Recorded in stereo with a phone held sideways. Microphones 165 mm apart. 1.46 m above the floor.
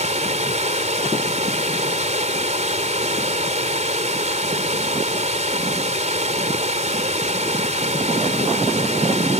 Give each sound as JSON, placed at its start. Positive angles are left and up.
{"t": 0.0, "sound": "running water", "side_deg": -45}